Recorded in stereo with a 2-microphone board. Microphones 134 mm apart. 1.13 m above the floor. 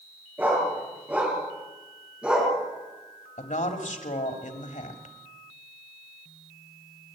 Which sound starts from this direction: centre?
A dog barking, at 0.4 s.